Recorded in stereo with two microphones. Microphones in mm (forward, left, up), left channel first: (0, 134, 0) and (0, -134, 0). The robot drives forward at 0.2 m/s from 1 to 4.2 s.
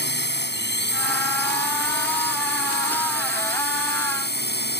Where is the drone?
40° left (ahead or behind).